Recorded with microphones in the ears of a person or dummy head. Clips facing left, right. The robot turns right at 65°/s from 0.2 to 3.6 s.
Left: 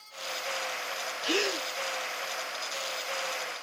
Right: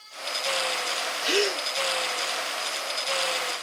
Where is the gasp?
30° right (ahead or behind), 1.1 m; by 1.6 s 5° right (ahead or behind), 1.1 m.